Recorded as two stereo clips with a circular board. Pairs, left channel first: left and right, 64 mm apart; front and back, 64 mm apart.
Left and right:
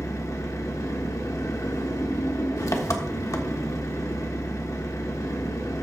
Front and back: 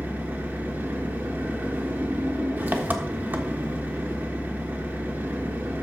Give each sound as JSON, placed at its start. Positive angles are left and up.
{"t": 0.0, "sound": "an engine running", "azimuth_deg": 120, "distance_m": 1.3}